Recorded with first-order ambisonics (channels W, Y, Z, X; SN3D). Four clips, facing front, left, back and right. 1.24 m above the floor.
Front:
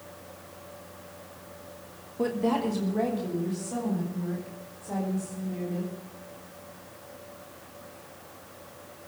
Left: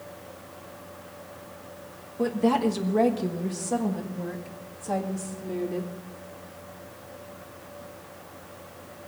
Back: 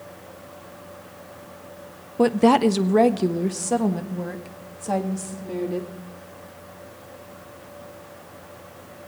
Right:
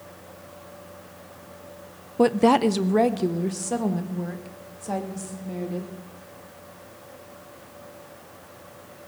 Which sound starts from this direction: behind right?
A woman speaking, at 2.2 s.